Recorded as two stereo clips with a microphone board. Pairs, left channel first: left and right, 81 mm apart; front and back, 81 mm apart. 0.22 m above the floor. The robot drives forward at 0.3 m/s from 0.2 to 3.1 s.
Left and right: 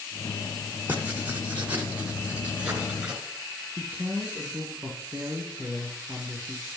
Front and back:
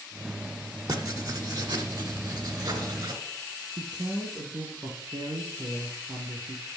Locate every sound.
0.9 s writing: 155° right, 1.4 m; by 3.2 s 165° right, 1.9 m
3.8 s a man speaking: 155° right, 3 m